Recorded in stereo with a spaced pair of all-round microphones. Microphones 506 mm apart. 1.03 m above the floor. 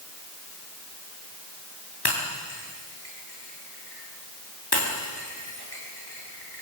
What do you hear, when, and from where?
2.0 s breaking glass: 50° left (ahead or behind), 9 m